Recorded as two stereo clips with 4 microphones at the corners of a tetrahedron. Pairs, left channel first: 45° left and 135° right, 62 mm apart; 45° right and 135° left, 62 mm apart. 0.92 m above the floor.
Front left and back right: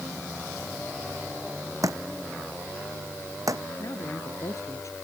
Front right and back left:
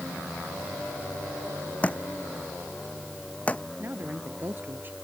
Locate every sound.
1.8 s a thud: 110° right
3.8 s a woman speaking: 75° left